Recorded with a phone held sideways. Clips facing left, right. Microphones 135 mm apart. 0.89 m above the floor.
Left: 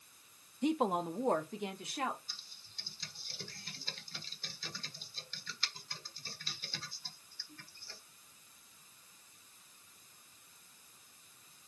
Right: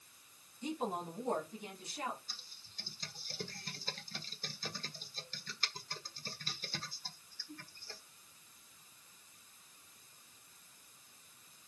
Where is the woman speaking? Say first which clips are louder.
Left 7 dB; 65° left (ahead or behind), 0.9 m; by 2.2 s 80° left, 2 m.